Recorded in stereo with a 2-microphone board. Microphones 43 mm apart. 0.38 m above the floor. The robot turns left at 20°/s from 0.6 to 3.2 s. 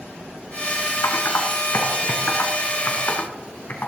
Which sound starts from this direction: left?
Typing on a keyboard, at 1.0 s.